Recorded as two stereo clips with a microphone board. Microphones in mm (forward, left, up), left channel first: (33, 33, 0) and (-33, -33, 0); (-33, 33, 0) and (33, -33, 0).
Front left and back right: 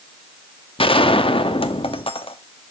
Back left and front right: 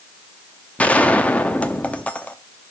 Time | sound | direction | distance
0.8 | a gunshot | 60° left | 0.8 m